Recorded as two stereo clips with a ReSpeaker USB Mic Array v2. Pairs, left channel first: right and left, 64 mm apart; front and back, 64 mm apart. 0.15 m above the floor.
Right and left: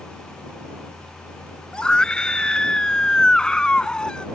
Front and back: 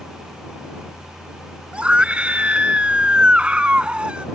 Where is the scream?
145° right.